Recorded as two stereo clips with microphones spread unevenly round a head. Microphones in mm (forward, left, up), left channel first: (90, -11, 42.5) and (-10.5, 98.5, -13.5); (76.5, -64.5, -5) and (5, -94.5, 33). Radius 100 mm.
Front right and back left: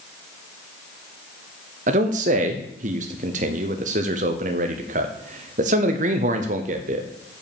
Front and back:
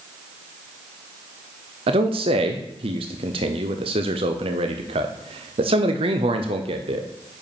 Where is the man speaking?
Straight behind, 0.8 m.